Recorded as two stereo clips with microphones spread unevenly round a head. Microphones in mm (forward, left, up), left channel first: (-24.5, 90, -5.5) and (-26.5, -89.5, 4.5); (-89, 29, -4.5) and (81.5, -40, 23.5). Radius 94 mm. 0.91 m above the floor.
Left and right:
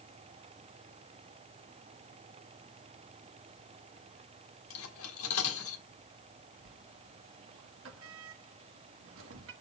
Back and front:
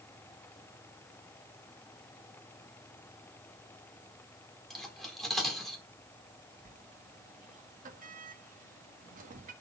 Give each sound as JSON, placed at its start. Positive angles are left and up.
{"t": 4.7, "sound": "cutlery clinking", "azimuth_deg": 65, "distance_m": 1.3}
{"t": 6.7, "sound": "a sliding door", "azimuth_deg": -70, "distance_m": 1.4}